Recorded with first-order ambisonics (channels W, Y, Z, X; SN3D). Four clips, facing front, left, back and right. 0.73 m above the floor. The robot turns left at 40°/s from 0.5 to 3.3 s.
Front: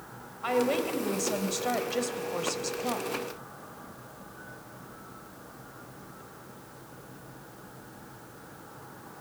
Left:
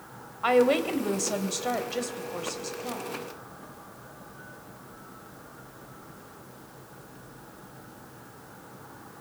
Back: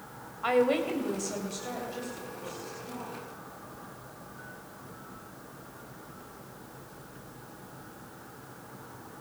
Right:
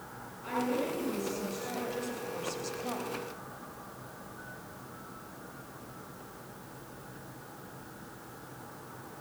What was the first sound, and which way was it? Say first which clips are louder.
A woman speaking: left 10 dB, back 2 dB; 100° left.